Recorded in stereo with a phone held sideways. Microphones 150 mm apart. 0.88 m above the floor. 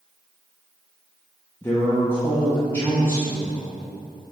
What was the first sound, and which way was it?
A man speaking, 15° left (ahead or behind).